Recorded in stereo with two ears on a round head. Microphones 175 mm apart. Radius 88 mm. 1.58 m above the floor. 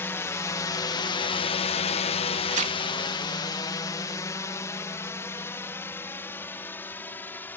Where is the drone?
10° left (ahead or behind).